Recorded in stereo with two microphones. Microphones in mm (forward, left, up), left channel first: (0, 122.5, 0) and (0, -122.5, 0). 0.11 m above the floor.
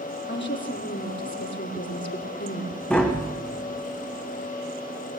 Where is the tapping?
5° left (ahead or behind), 3.5 m.